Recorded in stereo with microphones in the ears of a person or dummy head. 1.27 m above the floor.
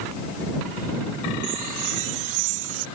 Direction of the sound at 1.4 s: 80° right.